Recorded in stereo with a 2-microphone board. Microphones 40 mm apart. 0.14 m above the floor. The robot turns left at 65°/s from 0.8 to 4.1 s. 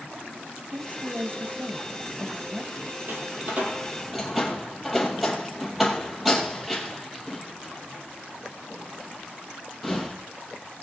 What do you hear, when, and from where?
0.7 s a woman speaking: 45° right, 2 m; by 3.0 s 175° left, 2 m
3.1 s a door slam: 60° right (ahead or behind), 3 m; by 10.2 s centre (ahead or behind), 3 m